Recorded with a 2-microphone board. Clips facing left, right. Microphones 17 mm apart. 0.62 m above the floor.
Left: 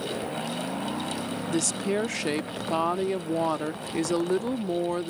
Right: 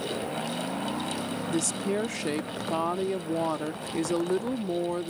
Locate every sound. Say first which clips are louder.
1.5 s a woman speaking: left 2 dB; 20° left (ahead or behind)